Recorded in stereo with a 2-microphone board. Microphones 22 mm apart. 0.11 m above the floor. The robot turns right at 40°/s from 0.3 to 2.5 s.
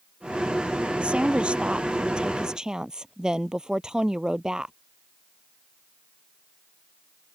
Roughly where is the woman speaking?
Right.